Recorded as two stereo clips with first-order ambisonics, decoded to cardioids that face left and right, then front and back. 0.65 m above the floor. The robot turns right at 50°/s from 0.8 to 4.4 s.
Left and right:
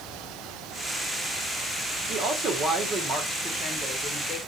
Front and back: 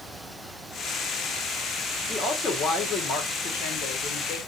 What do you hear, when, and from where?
2.1 s a woman speaking: 80° right, 1.2 m; by 4.4 s 35° left, 1.2 m